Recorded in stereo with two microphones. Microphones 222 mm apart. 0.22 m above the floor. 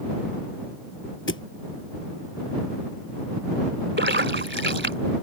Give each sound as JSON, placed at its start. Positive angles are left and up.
{"t": 1.3, "sound": "a thud", "side_deg": 65}
{"t": 4.0, "sound": "a splash", "side_deg": -55}